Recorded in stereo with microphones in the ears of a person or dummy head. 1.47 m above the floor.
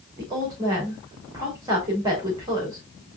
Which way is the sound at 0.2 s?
15° right (ahead or behind).